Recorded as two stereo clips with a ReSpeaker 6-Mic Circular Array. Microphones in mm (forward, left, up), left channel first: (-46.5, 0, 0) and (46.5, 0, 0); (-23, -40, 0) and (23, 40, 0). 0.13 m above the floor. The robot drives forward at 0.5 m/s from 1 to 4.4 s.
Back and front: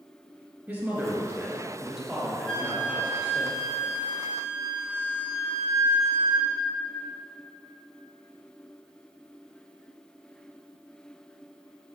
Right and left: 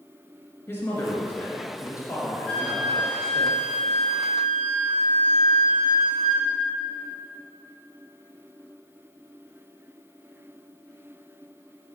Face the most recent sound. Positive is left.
turn(degrees=170)